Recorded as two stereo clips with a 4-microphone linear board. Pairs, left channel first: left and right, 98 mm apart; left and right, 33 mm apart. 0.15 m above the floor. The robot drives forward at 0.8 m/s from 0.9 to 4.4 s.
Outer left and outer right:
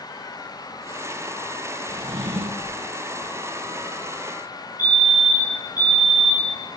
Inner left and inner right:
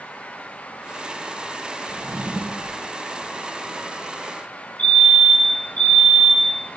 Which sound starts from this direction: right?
A drawer, at 1.9 s.